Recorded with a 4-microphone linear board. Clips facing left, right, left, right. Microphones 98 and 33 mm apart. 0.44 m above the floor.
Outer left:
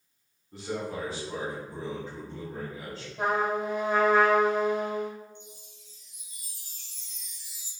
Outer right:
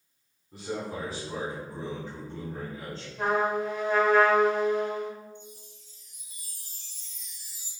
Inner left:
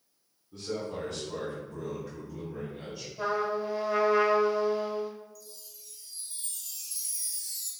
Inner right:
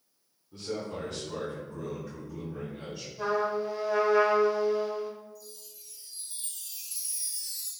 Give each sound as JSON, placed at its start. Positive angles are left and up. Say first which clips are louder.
{"t": 0.5, "sound": "a man speaking", "louder": "outer left 1 dB, even", "side_deg": -20, "distance_m": 1.9}
{"t": 3.2, "sound": "a trumpet", "louder": "outer right 1 dB, inner right 1 dB", "side_deg": 20, "distance_m": 1.0}
{"t": 5.3, "sound": "a chime", "louder": "outer right 2 dB, inner right 1 dB", "side_deg": -35, "distance_m": 1.3}